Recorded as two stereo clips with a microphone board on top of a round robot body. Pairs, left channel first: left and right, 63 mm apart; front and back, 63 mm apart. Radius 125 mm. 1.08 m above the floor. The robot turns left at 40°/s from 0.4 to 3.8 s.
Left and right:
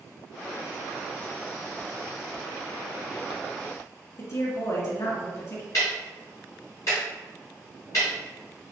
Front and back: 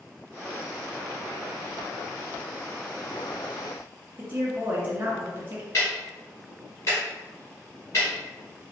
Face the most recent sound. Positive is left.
turn(degrees=50)